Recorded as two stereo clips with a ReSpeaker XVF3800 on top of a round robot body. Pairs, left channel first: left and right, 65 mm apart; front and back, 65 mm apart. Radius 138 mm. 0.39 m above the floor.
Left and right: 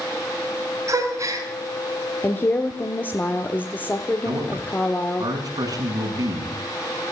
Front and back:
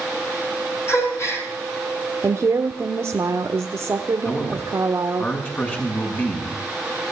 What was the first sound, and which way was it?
A gasp, 50° right.